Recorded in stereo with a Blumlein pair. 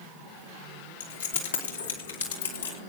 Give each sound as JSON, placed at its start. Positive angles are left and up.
{"t": 1.0, "sound": "keys jangling", "azimuth_deg": 60, "distance_m": 3.0}